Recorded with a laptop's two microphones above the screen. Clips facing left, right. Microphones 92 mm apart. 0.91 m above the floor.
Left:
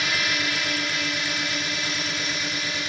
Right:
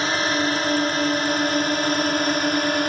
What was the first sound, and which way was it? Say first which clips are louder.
A drone: right 6 dB; 35° right (ahead or behind).